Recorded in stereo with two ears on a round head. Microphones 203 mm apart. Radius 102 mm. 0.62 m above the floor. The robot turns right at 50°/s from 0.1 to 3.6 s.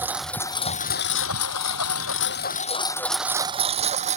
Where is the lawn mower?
10° right (ahead or behind); by 4.2 s 30° right (ahead or behind).